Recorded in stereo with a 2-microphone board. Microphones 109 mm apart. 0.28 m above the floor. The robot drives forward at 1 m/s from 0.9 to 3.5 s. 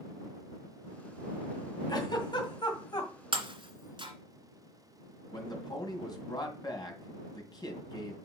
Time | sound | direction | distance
1.9 | a giggle | 40° left (ahead or behind) | 2.5 m
3.3 | breaking glass | 55° right (ahead or behind) | 1.8 m
5.3 | a man speaking | 40° left (ahead or behind) | 2 m